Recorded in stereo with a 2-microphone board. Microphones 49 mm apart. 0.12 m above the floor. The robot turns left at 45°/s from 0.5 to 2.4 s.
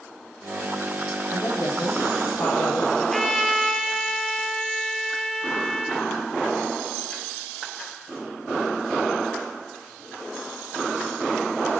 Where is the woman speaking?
120° left, 6 m; by 2.9 s 70° left, 6 m.